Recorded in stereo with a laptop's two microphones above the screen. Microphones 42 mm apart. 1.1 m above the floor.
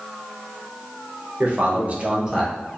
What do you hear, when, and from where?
1.4 s a man speaking: 40° right (ahead or behind), 1.3 m; by 2.5 s 5° left (ahead or behind), 0.7 m